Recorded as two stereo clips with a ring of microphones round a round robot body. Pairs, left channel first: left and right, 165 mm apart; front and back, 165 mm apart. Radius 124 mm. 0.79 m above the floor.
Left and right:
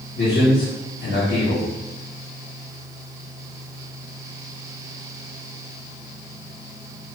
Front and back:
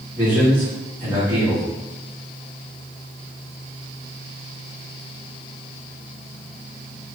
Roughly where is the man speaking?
Left.